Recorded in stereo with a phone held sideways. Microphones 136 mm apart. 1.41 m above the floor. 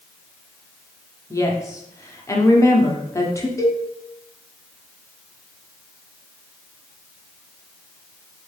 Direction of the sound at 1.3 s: 20° left (ahead or behind).